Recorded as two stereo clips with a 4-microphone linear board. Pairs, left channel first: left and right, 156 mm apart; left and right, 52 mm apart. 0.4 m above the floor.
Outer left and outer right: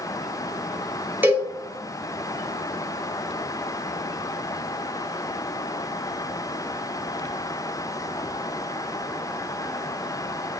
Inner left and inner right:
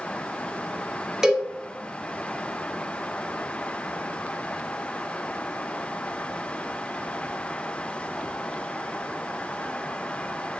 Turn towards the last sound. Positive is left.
turn(degrees=-15)  # may be behind; listen again after turning